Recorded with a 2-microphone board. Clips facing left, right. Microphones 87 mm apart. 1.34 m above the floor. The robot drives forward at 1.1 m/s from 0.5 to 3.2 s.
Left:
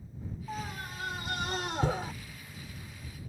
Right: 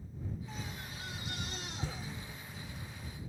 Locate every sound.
0.5 s a scream: 55° left (ahead or behind); by 2.1 s 70° left (ahead or behind)